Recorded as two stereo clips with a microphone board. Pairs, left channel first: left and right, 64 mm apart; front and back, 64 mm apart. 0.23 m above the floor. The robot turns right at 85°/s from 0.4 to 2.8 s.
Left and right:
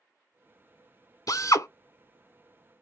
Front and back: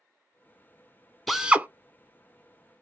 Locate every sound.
1.3 s a drill: 90° left, 0.7 m; by 1.7 s 125° left, 0.7 m